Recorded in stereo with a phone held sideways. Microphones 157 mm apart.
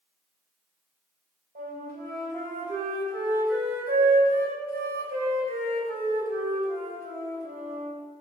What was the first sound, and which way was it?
A flute, 85° right.